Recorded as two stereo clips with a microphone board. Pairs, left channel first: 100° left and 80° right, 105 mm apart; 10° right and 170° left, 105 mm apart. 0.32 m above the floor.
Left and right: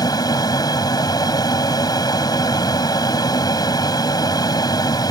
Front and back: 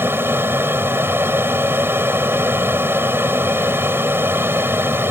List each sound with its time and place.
0.0 s an aircraft: 110° left